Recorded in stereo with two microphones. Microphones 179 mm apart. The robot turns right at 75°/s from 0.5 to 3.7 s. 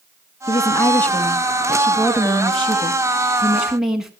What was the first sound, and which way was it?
A woman speaking, 25° left (ahead or behind).